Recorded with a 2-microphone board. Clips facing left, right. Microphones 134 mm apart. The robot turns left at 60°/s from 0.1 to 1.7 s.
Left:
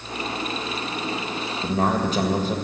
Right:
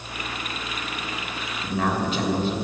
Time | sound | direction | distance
1.6 | a man speaking | 45° left (ahead or behind) | 1.4 m